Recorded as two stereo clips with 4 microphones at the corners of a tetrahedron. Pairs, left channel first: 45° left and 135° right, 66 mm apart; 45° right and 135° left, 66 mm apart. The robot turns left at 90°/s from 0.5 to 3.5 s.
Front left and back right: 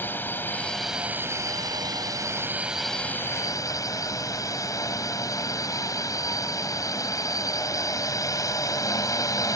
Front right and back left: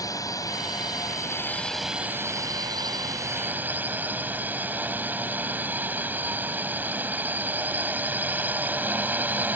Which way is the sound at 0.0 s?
15° right.